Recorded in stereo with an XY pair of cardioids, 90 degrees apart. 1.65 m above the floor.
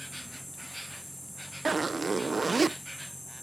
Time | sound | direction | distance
0.0 | an insect | straight ahead | ?
1.6 | a zipper | 30° right | ?